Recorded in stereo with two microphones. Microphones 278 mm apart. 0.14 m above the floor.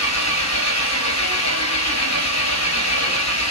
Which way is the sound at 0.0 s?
70° left (ahead or behind).